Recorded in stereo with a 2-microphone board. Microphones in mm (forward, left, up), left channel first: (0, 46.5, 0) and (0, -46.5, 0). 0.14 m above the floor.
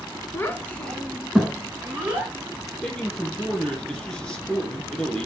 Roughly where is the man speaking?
Centre.